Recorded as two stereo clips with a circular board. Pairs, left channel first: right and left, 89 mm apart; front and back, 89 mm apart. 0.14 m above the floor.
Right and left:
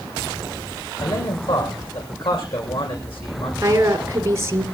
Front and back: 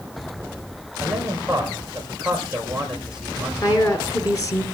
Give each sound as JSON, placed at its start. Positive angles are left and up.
{"t": 1.0, "sound": "a man speaking", "azimuth_deg": -100, "distance_m": 7.5}
{"t": 3.6, "sound": "a woman speaking", "azimuth_deg": 40, "distance_m": 2.5}